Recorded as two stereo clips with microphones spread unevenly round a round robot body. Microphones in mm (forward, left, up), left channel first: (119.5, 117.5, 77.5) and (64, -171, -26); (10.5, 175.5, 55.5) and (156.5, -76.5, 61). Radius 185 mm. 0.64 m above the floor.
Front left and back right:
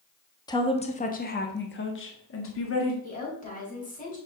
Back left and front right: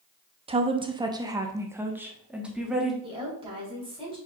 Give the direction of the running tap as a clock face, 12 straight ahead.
I don't hear a running tap.